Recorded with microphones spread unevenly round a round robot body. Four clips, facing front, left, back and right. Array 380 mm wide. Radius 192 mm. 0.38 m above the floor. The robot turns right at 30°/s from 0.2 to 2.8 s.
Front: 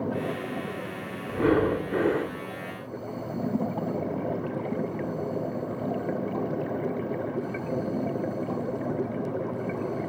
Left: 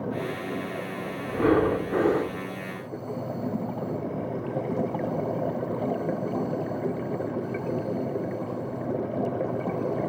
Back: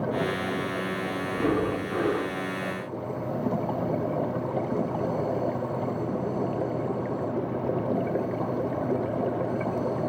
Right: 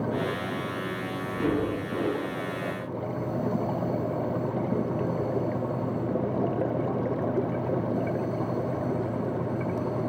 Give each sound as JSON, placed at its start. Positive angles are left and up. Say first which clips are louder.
{"t": 1.3, "sound": "breathing", "louder": "left 6 dB, front 4 dB", "azimuth_deg": 35, "distance_m": 0.9}